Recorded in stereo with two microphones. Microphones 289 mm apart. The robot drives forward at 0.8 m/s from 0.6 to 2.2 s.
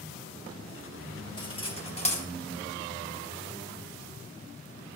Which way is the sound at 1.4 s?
15° left (ahead or behind).